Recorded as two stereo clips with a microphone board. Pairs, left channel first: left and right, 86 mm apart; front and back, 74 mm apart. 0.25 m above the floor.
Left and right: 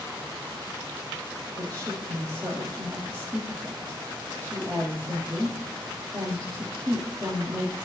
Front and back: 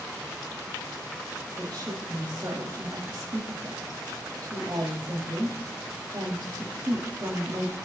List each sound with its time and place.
1.6 s a woman speaking: 135° right, 8 m